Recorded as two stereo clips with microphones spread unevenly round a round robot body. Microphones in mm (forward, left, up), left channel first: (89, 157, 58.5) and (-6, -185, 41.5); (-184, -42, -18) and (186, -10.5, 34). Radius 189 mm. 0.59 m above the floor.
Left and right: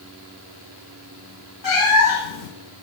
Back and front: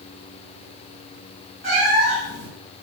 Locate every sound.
1.6 s a cat meowing: 65° left, 2 m